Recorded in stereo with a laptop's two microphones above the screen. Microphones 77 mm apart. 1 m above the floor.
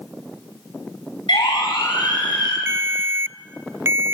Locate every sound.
1.3 s a siren: 85° left, 10 m; by 2.6 s 80° left, 9 m
2.7 s a ringtone: 35° right (ahead or behind), 0.5 m